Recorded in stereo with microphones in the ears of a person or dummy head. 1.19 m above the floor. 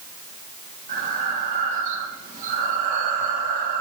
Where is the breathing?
50° right (ahead or behind), 1.6 m.